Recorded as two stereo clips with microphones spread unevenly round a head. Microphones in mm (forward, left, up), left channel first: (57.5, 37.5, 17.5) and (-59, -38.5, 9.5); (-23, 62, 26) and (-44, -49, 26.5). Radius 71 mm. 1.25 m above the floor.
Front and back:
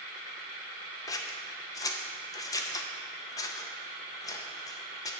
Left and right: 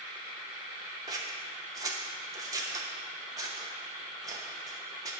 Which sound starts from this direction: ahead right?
Scissors, at 1.1 s.